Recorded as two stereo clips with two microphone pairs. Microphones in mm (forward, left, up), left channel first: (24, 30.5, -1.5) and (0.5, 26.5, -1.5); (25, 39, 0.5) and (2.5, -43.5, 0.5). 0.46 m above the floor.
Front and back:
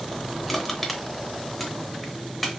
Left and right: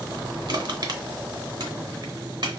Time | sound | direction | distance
0.5 | crushing | 75° right | 0.8 m